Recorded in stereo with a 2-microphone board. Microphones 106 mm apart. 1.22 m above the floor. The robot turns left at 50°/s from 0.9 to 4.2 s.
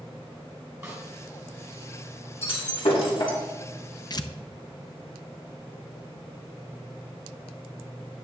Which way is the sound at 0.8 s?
30° right (ahead or behind).